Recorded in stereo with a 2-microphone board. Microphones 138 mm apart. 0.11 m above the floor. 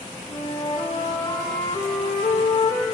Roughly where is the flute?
Left.